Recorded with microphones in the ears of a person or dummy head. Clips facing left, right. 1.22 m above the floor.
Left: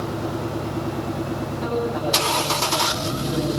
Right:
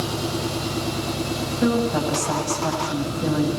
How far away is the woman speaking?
About 8.5 m.